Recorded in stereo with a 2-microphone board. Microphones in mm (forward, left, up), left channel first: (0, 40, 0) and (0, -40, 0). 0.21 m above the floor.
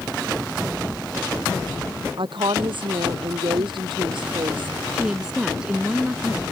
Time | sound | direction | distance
2.2 | a woman speaking | 80° right | ?
4.9 | a woman speaking | 10° right (ahead or behind) | ?